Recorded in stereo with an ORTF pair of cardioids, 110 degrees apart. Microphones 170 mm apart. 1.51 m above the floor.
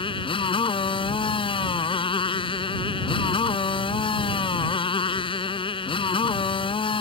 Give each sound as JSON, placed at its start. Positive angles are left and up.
{"t": 0.0, "sound": "a motorcycle", "azimuth_deg": 30}